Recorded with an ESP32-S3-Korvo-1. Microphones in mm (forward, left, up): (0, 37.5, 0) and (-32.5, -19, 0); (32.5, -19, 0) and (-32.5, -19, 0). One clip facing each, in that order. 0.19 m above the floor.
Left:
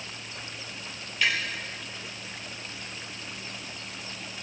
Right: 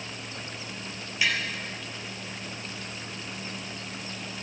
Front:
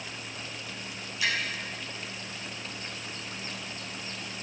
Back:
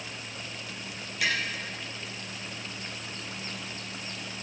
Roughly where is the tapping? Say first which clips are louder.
Left 1 dB, back 1 dB; behind.